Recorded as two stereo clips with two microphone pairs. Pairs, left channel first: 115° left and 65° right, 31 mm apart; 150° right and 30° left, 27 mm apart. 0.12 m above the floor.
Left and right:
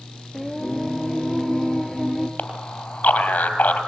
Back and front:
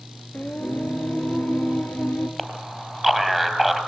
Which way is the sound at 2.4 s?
125° left.